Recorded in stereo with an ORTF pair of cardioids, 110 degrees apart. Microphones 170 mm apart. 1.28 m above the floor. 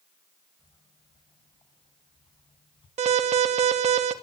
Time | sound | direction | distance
0.6 | footsteps | 25° left | 5.5 m
3.0 | an alarm | 45° right | 3 m